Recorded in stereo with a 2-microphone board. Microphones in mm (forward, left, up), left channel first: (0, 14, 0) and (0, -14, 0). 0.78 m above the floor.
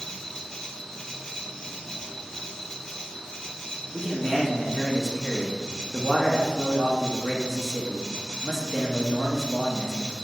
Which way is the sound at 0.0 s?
20° left (ahead or behind).